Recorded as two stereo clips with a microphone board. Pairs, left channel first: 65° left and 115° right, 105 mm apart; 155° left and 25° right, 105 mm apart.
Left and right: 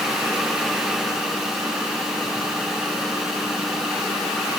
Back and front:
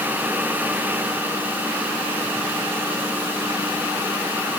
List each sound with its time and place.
Only background noise.